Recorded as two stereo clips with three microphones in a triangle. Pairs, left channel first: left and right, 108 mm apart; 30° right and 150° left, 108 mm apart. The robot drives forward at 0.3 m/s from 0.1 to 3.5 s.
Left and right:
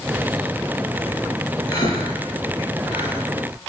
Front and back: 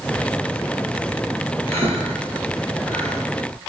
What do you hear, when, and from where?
1.7 s breathing: 145° left, 2.5 m; by 3.2 s 150° left, 2.5 m